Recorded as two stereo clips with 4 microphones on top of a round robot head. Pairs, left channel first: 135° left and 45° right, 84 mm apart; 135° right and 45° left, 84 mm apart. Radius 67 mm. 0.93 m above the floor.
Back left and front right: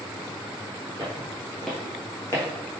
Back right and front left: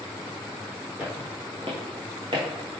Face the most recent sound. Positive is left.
turn(degrees=90)